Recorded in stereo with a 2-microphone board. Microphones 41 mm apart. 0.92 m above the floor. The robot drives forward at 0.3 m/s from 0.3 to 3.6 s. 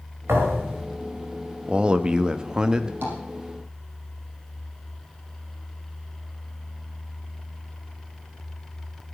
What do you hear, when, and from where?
0.3 s a thud: 75° right (ahead or behind), 5.5 m
1.7 s a man speaking: 25° right (ahead or behind), 0.9 m; by 2.9 s 15° right (ahead or behind), 1.2 m
3.0 s tapping: 55° right (ahead or behind), 5.5 m